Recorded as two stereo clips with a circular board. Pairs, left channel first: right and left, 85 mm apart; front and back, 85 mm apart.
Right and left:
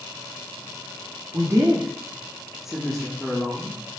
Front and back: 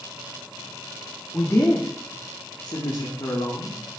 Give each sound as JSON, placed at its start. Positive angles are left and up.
{"t": 1.3, "sound": "a woman speaking", "azimuth_deg": 60, "distance_m": 1.2}